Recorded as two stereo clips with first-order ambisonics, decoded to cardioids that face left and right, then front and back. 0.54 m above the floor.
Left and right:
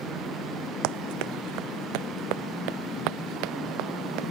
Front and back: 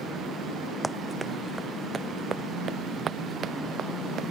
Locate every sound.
0.8 s running footsteps: 95° right; by 4.3 s 120° right